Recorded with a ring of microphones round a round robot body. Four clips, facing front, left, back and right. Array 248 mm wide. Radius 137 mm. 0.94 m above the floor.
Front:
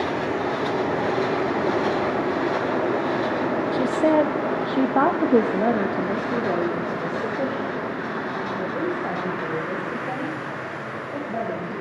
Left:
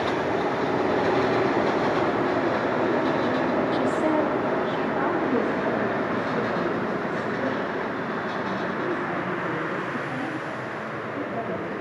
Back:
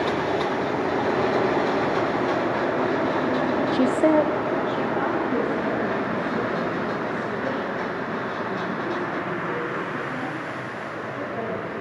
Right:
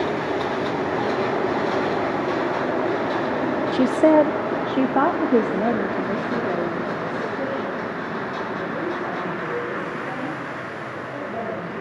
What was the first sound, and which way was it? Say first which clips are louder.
A woman speaking: right 7 dB, even; 125° right.